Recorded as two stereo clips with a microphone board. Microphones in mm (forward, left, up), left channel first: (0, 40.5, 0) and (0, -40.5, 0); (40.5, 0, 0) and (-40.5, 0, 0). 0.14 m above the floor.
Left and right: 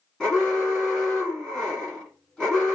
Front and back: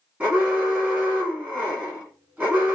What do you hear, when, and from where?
0.2 s an alarm: 160° left, 1.4 m